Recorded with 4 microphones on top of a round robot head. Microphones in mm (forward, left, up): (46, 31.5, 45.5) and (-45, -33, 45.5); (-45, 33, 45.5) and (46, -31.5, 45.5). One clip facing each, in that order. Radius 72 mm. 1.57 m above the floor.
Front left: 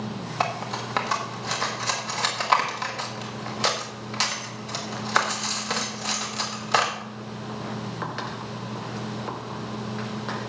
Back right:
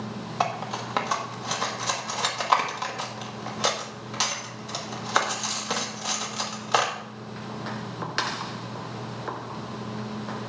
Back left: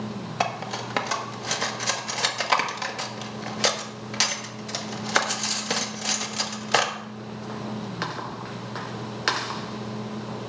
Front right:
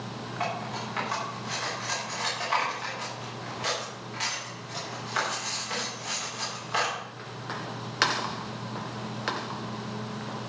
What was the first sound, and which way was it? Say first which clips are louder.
Cutlery clinking: even, back left 4 dB; 130° left.